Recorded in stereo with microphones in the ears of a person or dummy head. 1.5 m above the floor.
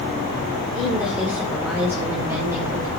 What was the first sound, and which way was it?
A woman speaking, centre (ahead or behind).